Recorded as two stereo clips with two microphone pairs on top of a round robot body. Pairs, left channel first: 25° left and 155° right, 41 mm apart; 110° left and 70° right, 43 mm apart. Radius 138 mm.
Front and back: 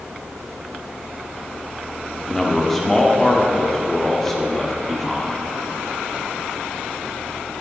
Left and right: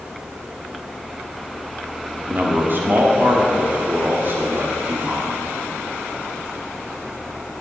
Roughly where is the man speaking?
Ahead right.